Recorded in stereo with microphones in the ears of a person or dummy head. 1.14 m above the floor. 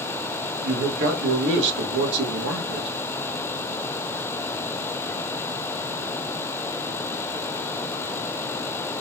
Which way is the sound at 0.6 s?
65° right (ahead or behind).